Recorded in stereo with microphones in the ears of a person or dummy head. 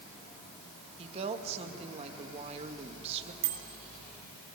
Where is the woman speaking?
30° right (ahead or behind), 2 m.